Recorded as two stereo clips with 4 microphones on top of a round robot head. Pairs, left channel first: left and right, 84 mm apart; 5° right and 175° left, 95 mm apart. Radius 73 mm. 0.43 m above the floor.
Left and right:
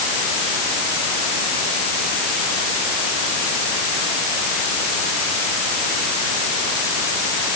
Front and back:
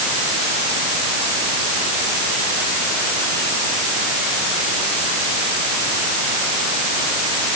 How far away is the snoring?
I don't hear snoring.